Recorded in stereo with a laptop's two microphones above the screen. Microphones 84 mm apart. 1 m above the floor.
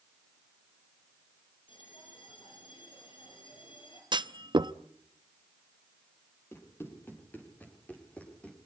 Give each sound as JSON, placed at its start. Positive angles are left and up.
{"t": 1.7, "sound": "a bell", "side_deg": 75, "distance_m": 5.5}
{"t": 4.1, "sound": "a clunk", "side_deg": -65, "distance_m": 0.6}
{"t": 6.5, "sound": "running footsteps", "side_deg": 30, "distance_m": 9.0}